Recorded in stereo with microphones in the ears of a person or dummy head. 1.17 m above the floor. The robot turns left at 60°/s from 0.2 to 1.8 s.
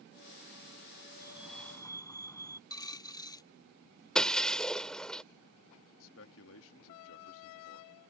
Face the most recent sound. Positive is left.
turn(degrees=80)